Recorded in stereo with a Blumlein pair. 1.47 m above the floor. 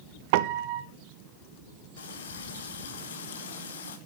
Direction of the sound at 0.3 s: 50° right.